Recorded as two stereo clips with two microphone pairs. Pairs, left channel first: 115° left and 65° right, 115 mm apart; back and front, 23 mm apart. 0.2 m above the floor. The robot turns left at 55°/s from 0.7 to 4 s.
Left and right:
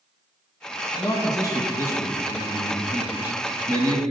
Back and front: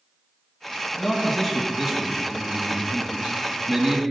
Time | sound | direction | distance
1.0 | a man speaking | 120° left | 1.1 m